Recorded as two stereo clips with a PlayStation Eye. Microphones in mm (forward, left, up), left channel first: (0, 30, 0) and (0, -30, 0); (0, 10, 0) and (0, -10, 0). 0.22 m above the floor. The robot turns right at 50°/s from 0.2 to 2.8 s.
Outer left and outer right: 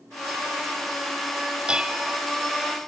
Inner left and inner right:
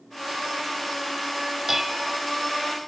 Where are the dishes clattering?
15° right (ahead or behind), 0.6 m; by 2.2 s 10° right (ahead or behind), 0.6 m.